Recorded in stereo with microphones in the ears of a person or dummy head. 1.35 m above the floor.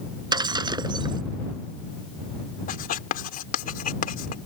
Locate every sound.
0.3 s breaking glass: 25° right (ahead or behind)
2.7 s writing: 50° left (ahead or behind)